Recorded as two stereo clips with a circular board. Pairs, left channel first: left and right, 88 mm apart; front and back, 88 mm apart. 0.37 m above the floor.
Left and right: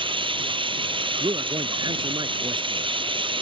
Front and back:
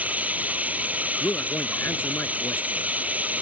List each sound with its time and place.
0.0 s running water: 105° right
1.2 s a man speaking: 60° right